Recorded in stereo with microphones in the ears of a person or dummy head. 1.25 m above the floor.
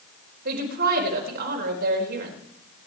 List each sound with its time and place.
0.5 s a woman speaking: 55° right (ahead or behind), 4.5 m